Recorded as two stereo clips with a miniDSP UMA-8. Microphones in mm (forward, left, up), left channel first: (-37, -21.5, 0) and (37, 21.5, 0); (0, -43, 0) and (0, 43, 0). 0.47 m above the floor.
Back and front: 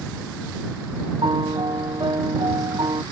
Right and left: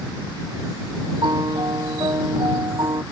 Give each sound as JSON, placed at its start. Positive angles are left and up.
{"t": 1.2, "sound": "a piano", "azimuth_deg": 55}